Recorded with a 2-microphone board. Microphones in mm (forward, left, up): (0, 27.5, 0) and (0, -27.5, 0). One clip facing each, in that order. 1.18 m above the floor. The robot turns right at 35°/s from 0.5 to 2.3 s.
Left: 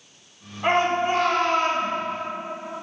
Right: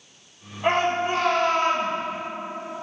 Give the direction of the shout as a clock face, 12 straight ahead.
11 o'clock.